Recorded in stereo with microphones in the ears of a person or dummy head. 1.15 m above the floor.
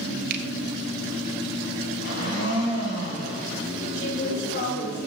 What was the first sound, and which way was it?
A finger snap, 50° right (ahead or behind).